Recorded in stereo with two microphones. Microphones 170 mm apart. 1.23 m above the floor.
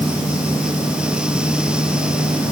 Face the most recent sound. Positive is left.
No sound to turn to.